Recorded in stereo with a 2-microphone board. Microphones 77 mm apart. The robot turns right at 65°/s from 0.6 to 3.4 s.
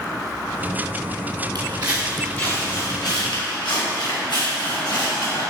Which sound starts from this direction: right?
Footsteps, at 1.6 s.